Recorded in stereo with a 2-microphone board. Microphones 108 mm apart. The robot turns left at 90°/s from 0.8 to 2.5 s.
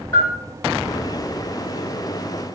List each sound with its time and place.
0.1 s a bell: 30° left (ahead or behind), 1.6 m